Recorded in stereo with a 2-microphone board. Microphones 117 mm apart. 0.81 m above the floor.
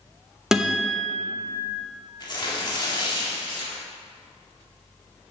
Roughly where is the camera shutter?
I don't hear a camera shutter.